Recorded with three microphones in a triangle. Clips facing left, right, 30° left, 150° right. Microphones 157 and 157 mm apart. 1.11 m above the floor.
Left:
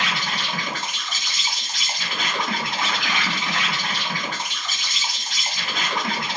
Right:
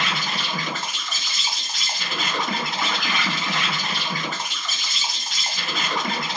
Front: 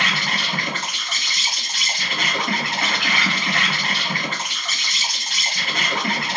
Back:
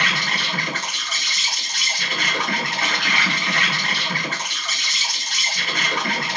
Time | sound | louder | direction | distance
0.0 | an insect | even, front 1 dB | 5° right | 1.3 m